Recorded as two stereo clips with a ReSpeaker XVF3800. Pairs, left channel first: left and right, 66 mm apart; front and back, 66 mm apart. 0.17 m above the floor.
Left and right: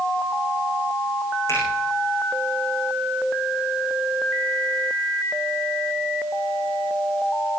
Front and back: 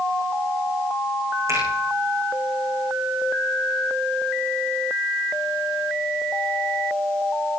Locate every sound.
1.5 s a finger snap: 140° left, 8.5 m